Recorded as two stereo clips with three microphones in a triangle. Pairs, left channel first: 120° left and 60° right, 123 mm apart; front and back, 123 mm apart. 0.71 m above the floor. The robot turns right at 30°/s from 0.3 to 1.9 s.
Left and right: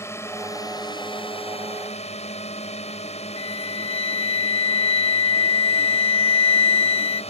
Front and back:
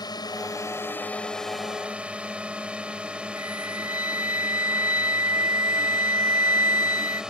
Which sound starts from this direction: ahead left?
A drone, at 0.0 s.